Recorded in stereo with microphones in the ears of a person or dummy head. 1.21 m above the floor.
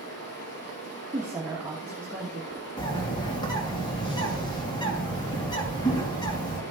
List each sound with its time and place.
0.0 s running water: 65° left (ahead or behind), 5 m
1.1 s a woman speaking: 10° right (ahead or behind), 1.3 m
2.8 s a bird: 25° left (ahead or behind), 2 m